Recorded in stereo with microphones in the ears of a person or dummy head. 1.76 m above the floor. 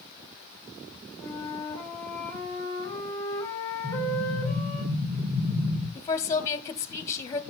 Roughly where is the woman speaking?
Centre.